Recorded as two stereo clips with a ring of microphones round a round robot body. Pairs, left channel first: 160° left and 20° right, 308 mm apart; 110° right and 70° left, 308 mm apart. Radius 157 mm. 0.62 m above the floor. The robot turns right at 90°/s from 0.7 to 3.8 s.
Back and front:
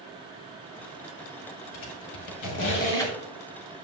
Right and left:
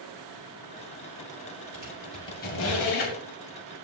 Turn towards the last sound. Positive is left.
turn(degrees=-50)